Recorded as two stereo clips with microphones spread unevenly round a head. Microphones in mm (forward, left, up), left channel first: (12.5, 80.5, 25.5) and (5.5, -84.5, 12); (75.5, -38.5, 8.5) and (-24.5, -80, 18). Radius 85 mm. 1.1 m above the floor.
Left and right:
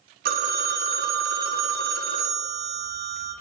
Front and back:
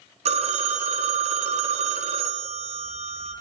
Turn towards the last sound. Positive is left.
turn(degrees=-130)